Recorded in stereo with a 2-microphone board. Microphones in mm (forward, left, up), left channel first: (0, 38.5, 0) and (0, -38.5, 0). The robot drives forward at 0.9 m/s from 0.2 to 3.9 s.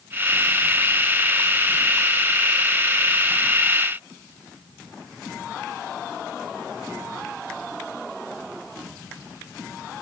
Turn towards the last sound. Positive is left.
No sound to turn to.